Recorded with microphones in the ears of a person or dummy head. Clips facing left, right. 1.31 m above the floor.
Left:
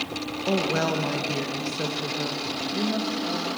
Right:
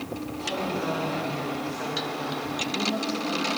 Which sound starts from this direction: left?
A woman speaking, at 0.5 s.